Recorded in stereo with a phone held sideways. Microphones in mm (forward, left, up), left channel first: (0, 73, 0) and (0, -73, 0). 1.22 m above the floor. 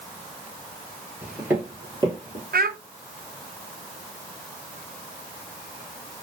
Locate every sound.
1.2 s footsteps: 5° right (ahead or behind), 1.5 m; by 2.4 s 40° right (ahead or behind), 1.8 m
2.5 s a child speaking: 75° right (ahead or behind), 0.5 m